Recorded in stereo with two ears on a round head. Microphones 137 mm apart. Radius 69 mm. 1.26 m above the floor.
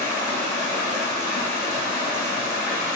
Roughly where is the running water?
Centre.